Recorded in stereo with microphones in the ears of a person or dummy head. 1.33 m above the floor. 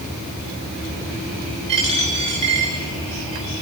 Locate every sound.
1.7 s a dropped coin: 30° right (ahead or behind), 6.5 m